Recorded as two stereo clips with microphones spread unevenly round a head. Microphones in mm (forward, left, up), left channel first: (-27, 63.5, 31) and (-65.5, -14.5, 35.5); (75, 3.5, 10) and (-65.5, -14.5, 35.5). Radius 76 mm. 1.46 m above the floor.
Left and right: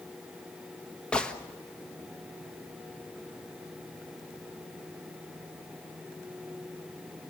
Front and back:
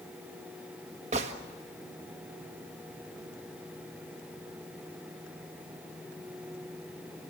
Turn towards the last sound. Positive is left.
turn(degrees=145)